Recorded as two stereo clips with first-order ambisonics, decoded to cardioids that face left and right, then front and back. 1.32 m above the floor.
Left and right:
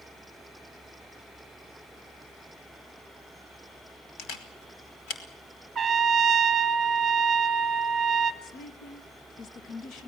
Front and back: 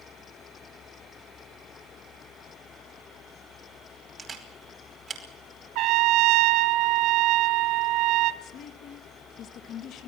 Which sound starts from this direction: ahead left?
A woman speaking, at 8.4 s.